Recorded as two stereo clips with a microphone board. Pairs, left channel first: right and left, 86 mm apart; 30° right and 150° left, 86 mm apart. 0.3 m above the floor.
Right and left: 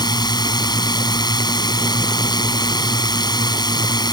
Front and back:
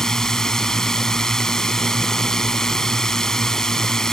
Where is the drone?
115° right.